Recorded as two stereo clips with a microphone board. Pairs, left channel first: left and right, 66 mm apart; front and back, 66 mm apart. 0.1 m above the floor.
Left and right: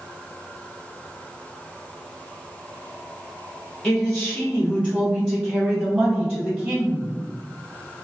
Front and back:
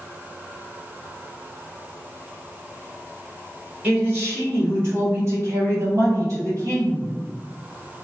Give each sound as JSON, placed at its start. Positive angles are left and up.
{"t": 3.8, "sound": "a man speaking", "azimuth_deg": -170, "distance_m": 1.2}